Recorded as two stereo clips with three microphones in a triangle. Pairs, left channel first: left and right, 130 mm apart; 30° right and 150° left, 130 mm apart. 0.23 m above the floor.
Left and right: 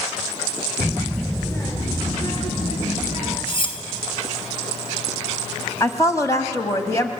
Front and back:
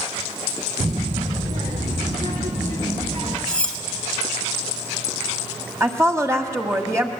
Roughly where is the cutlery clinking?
Ahead left.